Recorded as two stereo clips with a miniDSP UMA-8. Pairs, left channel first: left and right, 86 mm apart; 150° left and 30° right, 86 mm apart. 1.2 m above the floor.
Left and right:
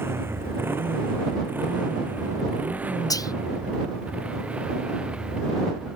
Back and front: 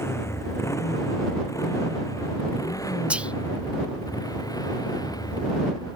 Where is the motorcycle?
150° right; by 6.0 s 170° right.